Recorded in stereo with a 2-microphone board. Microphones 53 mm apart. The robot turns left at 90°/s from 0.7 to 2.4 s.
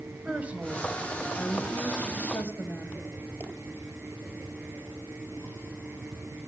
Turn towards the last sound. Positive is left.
turn(degrees=55)